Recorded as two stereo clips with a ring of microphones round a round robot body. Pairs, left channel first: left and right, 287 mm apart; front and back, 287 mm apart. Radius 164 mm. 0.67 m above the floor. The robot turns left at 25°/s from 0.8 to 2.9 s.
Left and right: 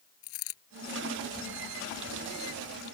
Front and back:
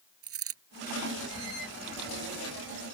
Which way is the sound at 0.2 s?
140° left.